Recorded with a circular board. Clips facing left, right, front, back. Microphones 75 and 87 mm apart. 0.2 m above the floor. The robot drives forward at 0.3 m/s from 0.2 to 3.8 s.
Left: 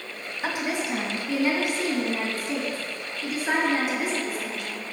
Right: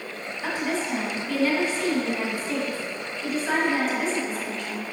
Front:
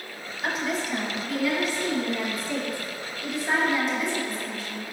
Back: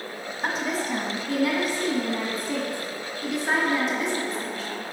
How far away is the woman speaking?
About 1.4 m.